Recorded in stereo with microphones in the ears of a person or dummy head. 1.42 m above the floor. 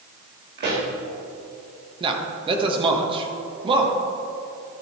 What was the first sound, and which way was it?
A pop, 45° right (ahead or behind).